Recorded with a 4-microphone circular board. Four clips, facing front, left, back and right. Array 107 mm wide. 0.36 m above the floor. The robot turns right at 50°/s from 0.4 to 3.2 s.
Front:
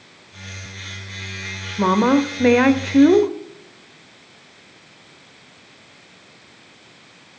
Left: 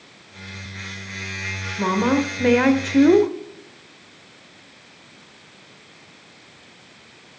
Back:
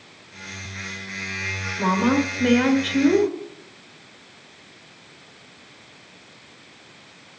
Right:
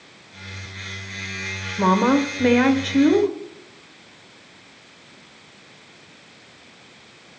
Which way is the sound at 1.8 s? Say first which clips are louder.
Right 2 dB, front 4 dB; 35° right.